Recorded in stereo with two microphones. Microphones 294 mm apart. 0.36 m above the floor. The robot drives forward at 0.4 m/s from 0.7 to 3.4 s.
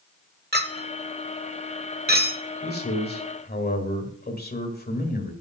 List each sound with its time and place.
0.5 s a clink: 35° right (ahead or behind), 1.0 m; by 2.4 s 30° right (ahead or behind), 1.1 m
2.6 s a man speaking: 35° left (ahead or behind), 1.7 m; by 5.3 s 30° left (ahead or behind), 1.8 m